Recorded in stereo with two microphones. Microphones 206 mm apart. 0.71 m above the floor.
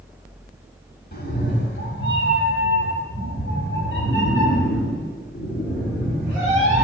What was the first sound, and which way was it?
A cat meowing, 50° left (ahead or behind).